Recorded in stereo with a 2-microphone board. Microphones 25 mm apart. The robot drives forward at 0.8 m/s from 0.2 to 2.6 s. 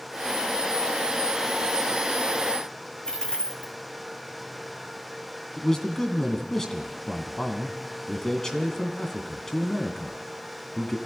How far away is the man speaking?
About 1.7 m.